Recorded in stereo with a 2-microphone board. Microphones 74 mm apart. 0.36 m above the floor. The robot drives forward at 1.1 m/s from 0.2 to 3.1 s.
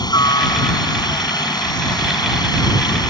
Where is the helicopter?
65° left (ahead or behind).